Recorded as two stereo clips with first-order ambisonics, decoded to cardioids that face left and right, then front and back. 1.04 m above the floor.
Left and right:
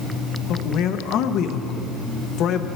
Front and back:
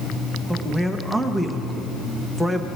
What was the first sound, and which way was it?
A man speaking, 85° left.